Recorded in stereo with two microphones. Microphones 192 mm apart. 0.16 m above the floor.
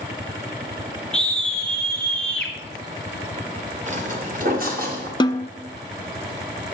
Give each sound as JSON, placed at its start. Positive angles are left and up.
{"t": 1.1, "sound": "a scream", "side_deg": 5, "distance_m": 2.0}
{"t": 3.9, "sound": "footsteps", "side_deg": -40, "distance_m": 2.0}
{"t": 5.2, "sound": "a snare drum", "side_deg": 25, "distance_m": 0.5}